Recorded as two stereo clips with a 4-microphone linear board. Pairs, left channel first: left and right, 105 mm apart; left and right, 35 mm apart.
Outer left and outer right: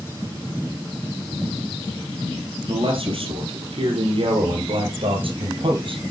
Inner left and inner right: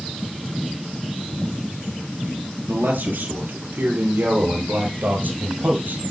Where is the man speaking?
55° right (ahead or behind), 2.5 m; by 6.0 s 50° right (ahead or behind), 3.5 m.